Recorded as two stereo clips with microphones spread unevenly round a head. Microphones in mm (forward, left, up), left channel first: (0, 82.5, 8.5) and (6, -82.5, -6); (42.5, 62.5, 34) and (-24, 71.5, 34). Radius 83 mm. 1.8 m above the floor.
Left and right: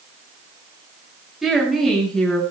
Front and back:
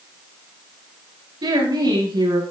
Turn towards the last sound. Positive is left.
turn(degrees=180)